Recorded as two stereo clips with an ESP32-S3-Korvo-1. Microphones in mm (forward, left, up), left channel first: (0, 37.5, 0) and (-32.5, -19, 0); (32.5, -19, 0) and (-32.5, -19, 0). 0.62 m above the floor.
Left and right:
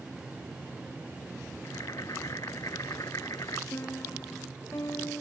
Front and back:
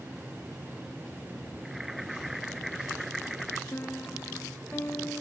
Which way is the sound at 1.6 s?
90° left.